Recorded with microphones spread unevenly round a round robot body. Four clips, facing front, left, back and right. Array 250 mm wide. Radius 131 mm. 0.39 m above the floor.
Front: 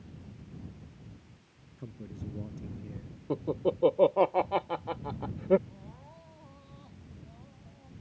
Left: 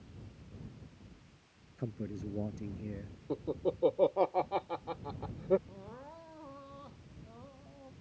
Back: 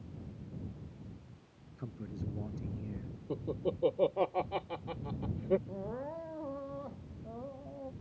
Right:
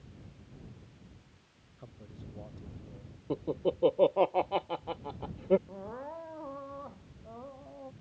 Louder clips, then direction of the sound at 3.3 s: Right 3 dB, front 6 dB; 20° right.